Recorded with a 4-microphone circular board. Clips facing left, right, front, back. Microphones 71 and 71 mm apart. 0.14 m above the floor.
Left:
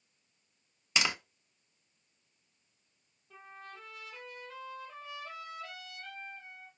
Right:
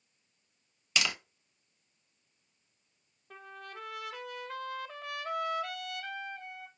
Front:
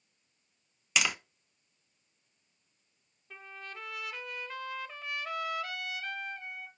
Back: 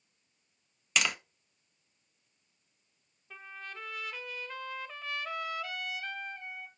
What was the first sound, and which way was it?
Tapping, 80° left.